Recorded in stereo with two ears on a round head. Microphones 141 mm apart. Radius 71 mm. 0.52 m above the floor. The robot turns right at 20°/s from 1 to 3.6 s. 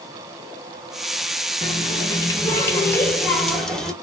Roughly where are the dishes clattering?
I don't hear dishes clattering.